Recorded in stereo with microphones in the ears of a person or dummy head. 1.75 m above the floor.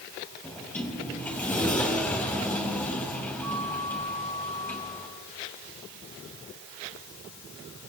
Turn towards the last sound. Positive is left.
turn(degrees=10)  # may be behind; listen again after turning